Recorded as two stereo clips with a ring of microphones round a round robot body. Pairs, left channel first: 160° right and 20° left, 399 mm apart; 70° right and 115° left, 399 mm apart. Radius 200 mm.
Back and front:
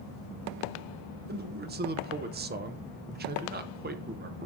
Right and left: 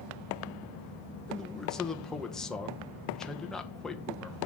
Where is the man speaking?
20° left, 0.8 m.